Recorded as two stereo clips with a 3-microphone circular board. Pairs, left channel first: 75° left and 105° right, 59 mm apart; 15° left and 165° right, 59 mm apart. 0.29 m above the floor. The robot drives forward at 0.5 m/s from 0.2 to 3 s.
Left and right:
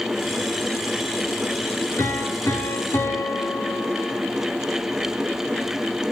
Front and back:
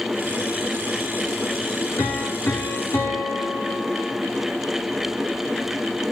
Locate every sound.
2.0 s a piano: 50° left, 3.5 m; by 4.2 s 55° left, 3 m